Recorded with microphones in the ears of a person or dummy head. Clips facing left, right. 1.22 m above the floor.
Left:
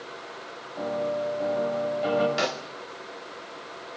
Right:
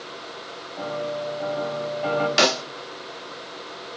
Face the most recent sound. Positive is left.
turn(degrees=-80)